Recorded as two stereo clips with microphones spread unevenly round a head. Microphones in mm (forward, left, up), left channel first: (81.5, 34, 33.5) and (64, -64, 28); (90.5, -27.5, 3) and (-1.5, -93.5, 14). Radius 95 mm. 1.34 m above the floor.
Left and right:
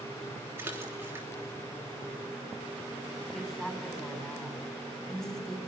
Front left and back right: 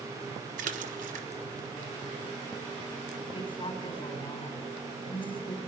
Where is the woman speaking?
5° right, 5.5 m.